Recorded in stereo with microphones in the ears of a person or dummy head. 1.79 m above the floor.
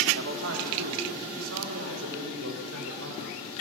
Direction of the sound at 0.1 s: 75° right (ahead or behind).